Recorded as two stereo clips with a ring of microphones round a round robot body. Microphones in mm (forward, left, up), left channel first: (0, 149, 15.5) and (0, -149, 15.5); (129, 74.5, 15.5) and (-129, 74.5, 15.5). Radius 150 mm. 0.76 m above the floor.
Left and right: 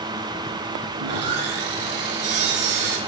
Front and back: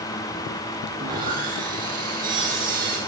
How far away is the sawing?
About 4 m.